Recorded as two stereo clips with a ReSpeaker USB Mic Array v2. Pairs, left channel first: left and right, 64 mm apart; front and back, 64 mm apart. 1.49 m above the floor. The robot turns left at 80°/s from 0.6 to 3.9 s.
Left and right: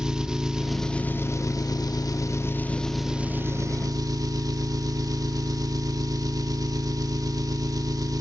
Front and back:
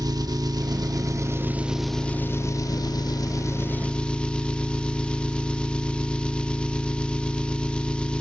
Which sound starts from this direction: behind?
An engine running, at 0.0 s.